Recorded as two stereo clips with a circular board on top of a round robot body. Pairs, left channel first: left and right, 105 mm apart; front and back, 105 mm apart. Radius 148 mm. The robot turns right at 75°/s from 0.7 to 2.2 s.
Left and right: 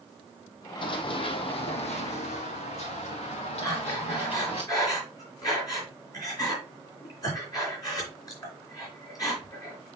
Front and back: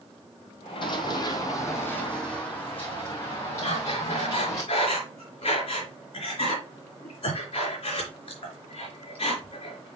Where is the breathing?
35° left, 4 m.